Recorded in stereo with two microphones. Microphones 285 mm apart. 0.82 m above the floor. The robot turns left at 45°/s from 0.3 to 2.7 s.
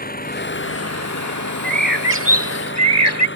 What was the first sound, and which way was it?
An engine running, 150° left.